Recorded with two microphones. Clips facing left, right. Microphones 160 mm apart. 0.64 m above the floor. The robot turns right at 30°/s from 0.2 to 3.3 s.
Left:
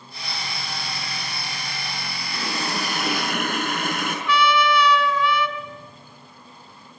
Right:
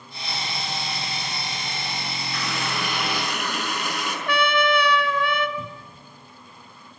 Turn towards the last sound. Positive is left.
turn(degrees=-80)